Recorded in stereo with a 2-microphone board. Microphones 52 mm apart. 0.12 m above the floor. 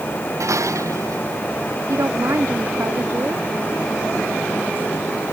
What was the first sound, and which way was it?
Dishes clattering, 85° right.